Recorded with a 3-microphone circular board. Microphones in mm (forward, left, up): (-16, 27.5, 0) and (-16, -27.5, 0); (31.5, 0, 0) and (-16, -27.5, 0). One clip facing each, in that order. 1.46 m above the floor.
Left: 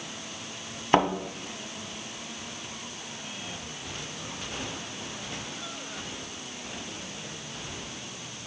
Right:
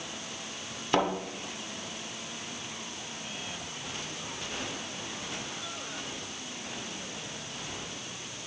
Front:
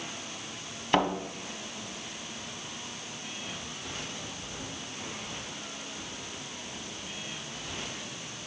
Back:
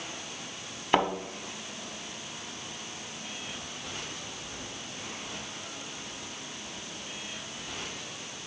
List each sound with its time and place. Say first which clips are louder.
0.9 s a thud: left 5 dB, even; 140° left, 1.4 m